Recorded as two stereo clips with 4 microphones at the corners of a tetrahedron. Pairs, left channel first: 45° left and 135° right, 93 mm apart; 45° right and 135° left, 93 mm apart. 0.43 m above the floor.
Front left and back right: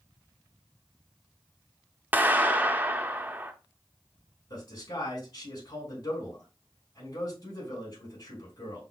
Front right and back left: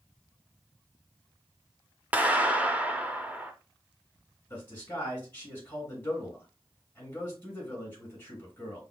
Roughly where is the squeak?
I don't hear a squeak.